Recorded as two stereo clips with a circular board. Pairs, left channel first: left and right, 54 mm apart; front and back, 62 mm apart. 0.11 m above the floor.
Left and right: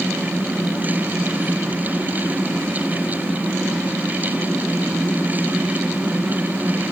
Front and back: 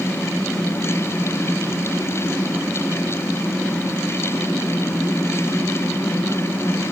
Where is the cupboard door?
No cupboard door in this recording.